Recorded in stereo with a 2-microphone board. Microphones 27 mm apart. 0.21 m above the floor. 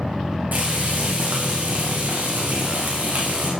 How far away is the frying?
About 4.5 m.